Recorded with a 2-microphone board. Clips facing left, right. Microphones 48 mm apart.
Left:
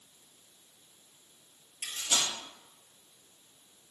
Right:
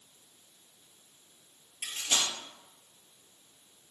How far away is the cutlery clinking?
About 1.4 m.